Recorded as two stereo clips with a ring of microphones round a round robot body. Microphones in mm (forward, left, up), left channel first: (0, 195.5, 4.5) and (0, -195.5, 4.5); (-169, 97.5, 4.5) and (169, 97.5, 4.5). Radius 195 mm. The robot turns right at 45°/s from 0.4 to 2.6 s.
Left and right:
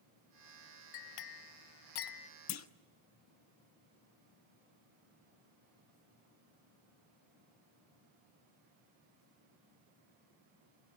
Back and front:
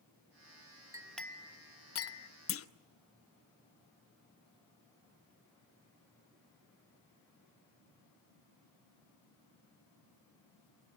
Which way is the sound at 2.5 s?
135° left.